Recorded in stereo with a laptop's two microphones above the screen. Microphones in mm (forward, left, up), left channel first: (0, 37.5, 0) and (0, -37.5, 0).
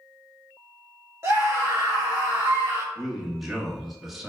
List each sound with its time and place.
1.2 s a scream: 35° right (ahead or behind), 1.5 m
3.0 s a man speaking: centre (ahead or behind), 1.4 m